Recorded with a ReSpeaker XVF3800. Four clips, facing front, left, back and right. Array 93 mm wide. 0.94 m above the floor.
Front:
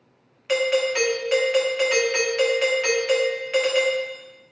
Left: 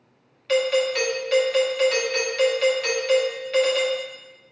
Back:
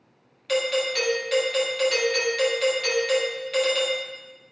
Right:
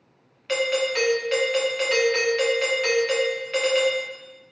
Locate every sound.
0.5 s a doorbell: 20° right, 0.9 m